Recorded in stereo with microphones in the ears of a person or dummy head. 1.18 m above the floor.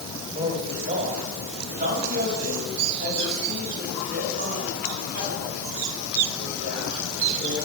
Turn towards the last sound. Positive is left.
turn(degrees=-65)  # may be behind; listen again after turning